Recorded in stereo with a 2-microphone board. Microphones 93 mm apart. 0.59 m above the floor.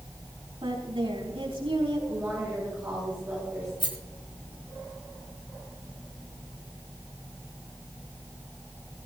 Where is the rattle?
70° left (ahead or behind), 3 m.